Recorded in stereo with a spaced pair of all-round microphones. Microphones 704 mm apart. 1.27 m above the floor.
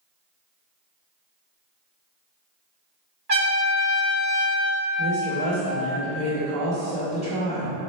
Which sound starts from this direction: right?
A trumpet, at 3.3 s.